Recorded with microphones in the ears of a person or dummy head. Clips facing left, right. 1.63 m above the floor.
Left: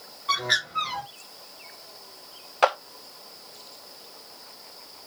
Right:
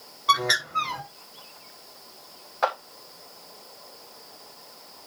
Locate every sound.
0.3 s a bird: 50° right (ahead or behind), 3 m
2.6 s a clap: 35° left (ahead or behind), 0.8 m